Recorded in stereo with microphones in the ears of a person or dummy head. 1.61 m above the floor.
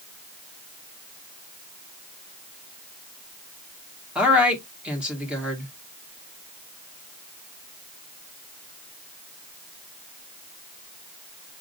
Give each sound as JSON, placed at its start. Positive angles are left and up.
{"t": 4.2, "sound": "a woman speaking", "side_deg": -5, "distance_m": 1.5}